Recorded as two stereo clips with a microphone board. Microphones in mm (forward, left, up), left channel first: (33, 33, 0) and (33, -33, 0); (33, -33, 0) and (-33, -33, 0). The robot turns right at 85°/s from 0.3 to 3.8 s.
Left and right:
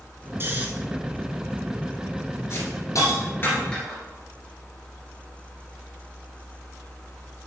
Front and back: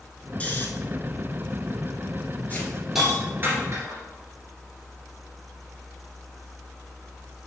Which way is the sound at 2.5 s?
55° left.